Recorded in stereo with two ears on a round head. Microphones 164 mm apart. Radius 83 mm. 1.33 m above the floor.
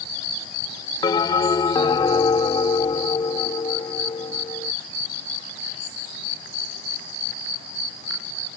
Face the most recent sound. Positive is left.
turn(degrees=20)  # may be behind; listen again after turning